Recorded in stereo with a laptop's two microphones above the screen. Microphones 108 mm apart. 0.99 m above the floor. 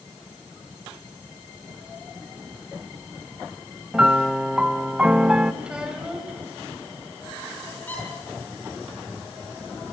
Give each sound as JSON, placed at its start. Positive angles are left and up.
{"t": 3.9, "sound": "a piano", "side_deg": -10, "distance_m": 0.9}
{"t": 5.6, "sound": "a child speaking", "side_deg": -10, "distance_m": 3.5}
{"t": 7.9, "sound": "a squeak", "side_deg": 15, "distance_m": 6.0}